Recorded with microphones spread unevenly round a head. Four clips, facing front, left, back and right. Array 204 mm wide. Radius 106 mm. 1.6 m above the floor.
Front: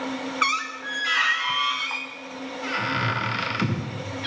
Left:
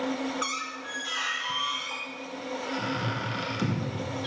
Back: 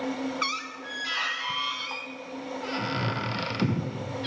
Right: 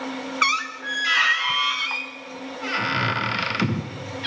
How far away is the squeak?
About 0.5 m.